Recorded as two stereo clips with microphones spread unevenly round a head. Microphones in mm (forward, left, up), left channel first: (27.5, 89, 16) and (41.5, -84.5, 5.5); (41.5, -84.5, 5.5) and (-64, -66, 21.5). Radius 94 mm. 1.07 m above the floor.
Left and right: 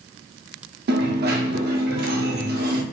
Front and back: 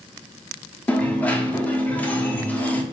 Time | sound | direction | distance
0.9 | a dropped coin | 90° right | 0.7 m